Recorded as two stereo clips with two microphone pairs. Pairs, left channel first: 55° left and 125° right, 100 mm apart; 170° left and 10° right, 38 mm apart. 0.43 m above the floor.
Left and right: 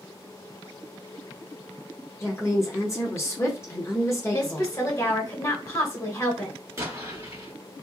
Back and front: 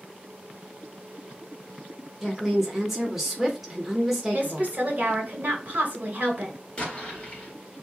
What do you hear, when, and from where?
2.2 s a woman speaking: 60° left, 0.9 m
4.3 s a woman speaking: 10° left, 1.7 m
6.8 s an explosion: 150° right, 1.4 m